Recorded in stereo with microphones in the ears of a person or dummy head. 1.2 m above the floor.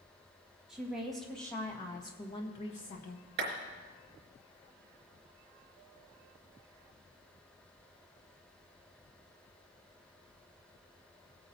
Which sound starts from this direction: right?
A clap, at 3.4 s.